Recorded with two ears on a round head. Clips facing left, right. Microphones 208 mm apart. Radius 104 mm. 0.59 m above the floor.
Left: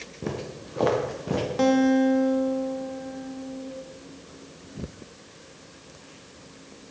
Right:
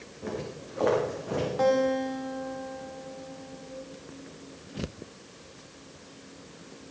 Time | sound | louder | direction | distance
0.2 | footsteps | left 2 dB | 55° left (ahead or behind) | 2.5 m
1.6 | a guitar | left 6 dB | 45° left (ahead or behind) | 1.7 m